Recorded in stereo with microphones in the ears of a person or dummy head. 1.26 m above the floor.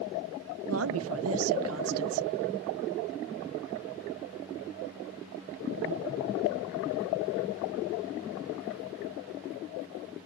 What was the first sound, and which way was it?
A woman speaking, 70° right (ahead or behind).